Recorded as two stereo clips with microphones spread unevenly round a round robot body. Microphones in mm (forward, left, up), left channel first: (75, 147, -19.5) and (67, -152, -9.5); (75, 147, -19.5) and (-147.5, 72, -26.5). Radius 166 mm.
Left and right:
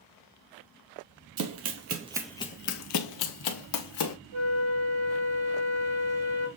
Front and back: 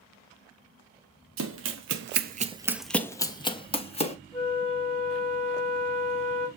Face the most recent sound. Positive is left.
turn(degrees=-85)